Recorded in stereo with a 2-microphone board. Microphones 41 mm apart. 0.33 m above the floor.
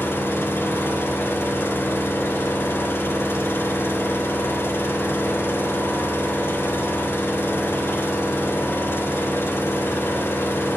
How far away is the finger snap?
I don't hear a finger snap.